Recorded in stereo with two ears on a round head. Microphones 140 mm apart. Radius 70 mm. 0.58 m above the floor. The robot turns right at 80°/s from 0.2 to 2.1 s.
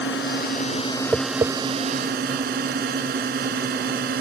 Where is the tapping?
5° right (ahead or behind); by 1.5 s 35° right (ahead or behind).